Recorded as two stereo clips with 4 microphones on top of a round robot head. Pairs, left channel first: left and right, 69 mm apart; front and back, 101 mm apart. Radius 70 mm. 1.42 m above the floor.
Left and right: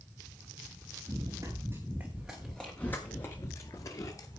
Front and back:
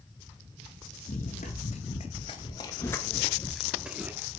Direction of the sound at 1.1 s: 25° right.